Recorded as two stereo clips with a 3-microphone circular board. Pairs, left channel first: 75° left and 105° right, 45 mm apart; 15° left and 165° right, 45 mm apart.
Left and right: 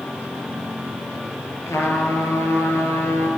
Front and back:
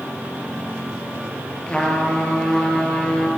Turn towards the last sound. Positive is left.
turn(degrees=80)